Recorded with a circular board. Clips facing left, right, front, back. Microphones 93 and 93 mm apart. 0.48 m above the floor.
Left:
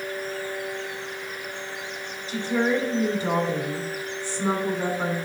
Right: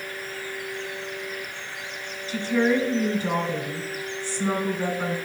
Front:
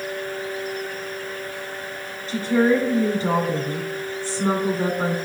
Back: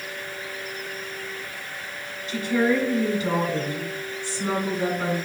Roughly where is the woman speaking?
Ahead left.